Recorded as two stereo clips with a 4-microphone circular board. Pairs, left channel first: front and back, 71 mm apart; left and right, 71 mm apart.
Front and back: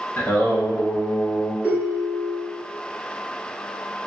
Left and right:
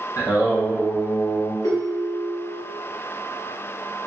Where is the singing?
60° left, 1.0 m.